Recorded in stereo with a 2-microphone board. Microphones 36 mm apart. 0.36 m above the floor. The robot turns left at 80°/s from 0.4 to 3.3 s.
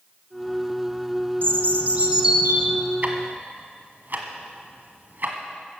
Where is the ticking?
40° right (ahead or behind), 1.5 m; by 5.4 s 60° right (ahead or behind), 1.5 m.